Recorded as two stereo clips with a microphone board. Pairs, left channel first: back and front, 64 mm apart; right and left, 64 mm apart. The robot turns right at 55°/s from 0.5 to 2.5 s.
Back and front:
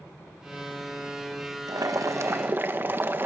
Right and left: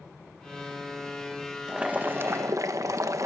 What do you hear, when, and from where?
1.7 s boiling: 10° left, 1.4 m; by 3.3 s 55° left, 1.4 m